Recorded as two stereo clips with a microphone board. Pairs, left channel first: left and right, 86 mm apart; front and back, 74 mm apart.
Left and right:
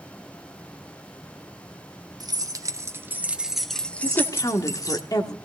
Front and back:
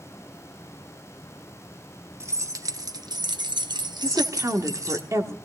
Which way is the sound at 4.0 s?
135° left.